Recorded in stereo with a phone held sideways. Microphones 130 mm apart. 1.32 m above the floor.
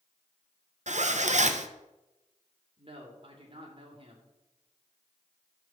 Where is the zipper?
65° right (ahead or behind), 0.7 m.